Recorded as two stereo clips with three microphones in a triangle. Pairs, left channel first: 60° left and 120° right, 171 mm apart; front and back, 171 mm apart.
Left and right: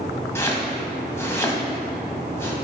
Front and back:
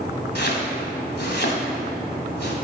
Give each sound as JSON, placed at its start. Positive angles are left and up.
{"t": 0.3, "sound": "chopping", "azimuth_deg": -15, "distance_m": 1.7}